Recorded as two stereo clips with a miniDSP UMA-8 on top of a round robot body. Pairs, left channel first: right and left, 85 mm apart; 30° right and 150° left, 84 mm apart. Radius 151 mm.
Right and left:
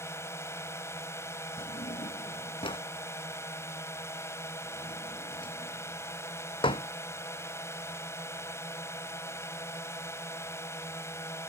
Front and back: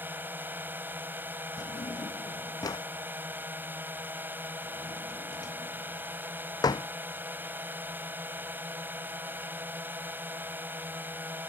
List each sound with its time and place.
0.0 s a drone: 145° right
1.6 s a drawer: 75° right